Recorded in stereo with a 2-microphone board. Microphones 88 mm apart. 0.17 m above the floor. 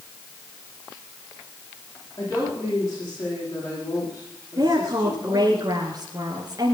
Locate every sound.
2.2 s a woman speaking: 35° left (ahead or behind), 9 m
4.6 s a woman speaking: 45° right (ahead or behind), 2 m